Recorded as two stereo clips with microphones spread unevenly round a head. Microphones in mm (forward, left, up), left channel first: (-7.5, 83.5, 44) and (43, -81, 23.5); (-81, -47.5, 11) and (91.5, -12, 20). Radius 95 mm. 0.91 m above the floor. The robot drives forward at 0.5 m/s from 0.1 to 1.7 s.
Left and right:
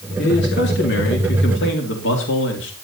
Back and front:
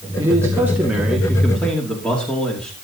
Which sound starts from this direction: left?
A man speaking, at 0.2 s.